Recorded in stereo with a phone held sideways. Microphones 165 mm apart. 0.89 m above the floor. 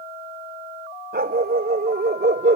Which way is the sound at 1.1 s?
80° right.